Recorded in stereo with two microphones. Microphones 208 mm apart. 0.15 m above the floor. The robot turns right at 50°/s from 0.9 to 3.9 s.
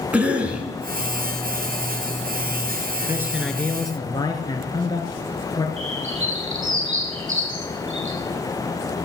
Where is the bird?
75° right (ahead or behind), 4.5 m.